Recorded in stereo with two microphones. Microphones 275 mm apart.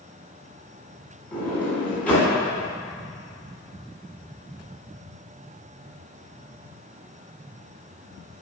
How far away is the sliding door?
About 2 m.